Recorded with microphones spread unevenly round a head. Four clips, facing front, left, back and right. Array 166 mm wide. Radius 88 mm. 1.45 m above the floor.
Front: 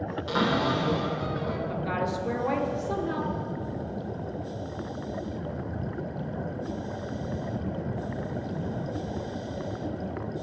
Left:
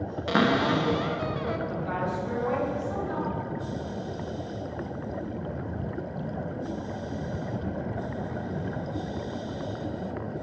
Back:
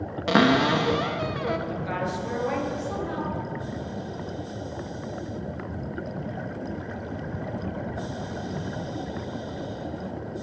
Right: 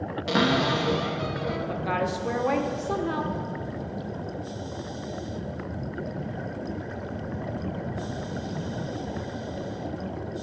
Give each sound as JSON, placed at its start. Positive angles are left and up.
{"t": 0.3, "sound": "a cupboard door", "azimuth_deg": 180, "distance_m": 1.0}
{"t": 1.7, "sound": "a woman speaking", "azimuth_deg": -75, "distance_m": 1.2}